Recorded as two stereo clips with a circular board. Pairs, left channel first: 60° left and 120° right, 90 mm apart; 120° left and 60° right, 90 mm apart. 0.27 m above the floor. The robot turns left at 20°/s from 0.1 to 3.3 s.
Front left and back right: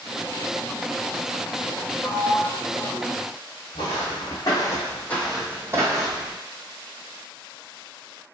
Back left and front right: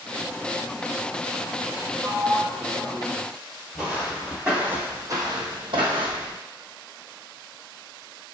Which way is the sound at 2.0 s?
20° left.